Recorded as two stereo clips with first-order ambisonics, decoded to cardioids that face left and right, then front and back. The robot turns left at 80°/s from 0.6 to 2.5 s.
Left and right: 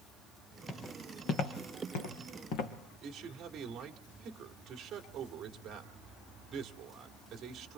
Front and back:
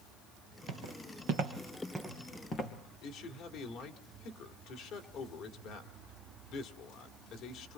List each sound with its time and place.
0.7 s footsteps: 170° left, 2 m; by 2.7 s 65° left, 3 m
3.0 s a man speaking: 35° right, 1.9 m